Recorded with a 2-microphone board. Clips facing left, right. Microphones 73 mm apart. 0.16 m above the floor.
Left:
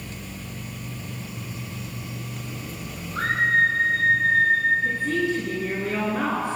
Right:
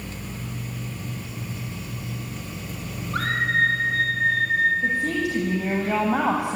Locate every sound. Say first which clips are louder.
3.1 s a scream: left 2 dB; 65° right (ahead or behind), 5 m; by 4.7 s 70° right (ahead or behind), 4 m
4.8 s a woman speaking: even; 80° right, 7 m